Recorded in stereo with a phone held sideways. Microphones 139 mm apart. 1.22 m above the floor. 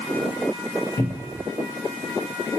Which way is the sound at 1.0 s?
20° left (ahead or behind).